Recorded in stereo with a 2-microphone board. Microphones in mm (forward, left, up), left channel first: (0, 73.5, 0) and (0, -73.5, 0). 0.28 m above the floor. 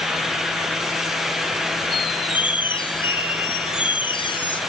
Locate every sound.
1.9 s a squeak: 35° left (ahead or behind), 2 m